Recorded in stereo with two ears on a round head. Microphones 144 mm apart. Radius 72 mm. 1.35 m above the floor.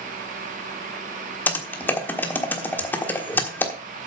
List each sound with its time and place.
1.5 s typing on a keyboard: 10° left (ahead or behind), 1.3 m